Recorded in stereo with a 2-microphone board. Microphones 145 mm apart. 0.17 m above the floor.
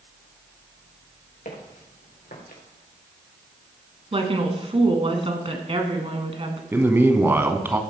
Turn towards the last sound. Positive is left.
turn(degrees=-15)  # may be behind; listen again after turning